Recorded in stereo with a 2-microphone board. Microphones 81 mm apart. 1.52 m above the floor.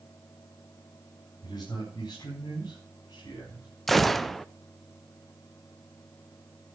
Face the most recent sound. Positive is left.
turn(degrees=0)  # may be behind; listen again after turning